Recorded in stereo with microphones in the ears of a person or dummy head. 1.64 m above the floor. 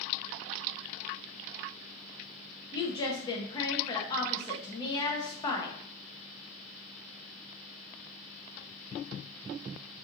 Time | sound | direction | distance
2.7 | a woman speaking | 20° left (ahead or behind) | 0.5 m